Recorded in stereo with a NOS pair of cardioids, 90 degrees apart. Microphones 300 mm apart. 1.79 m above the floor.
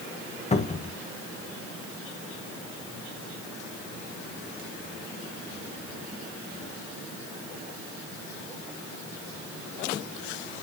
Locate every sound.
0.5 s a cupboard door: 20° left, 1.8 m